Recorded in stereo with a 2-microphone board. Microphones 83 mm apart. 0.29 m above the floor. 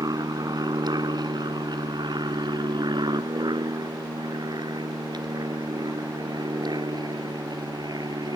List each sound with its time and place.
0.0 s an aircraft: 55° right (ahead or behind); by 8.4 s 60° right (ahead or behind)